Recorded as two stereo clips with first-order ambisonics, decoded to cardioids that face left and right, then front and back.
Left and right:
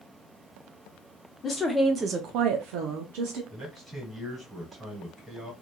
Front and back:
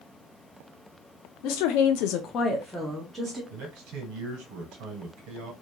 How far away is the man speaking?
About 1.8 m.